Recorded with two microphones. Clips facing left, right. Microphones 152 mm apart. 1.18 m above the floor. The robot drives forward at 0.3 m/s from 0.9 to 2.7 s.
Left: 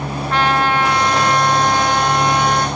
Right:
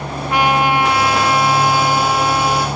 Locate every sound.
0.3 s a trumpet: 10° right (ahead or behind), 0.7 m; by 2.7 s 5° right (ahead or behind), 1.2 m